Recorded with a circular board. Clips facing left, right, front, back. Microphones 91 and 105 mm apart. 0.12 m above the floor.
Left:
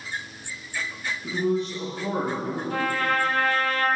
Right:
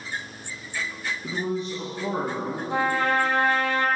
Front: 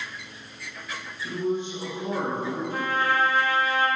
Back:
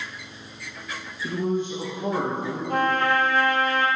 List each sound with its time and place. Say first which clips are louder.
1.2 s a man speaking: left 4 dB, back 2 dB; 155° right, 2 m; by 2.6 s 165° right, 3.5 m
2.7 s a trumpet: right 3 dB, back 6 dB; 155° right, 1.0 m